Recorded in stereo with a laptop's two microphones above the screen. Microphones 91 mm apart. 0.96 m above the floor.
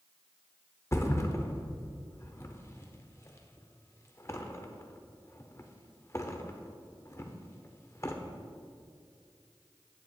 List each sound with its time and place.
0.9 s a thud: 30° left (ahead or behind), 0.7 m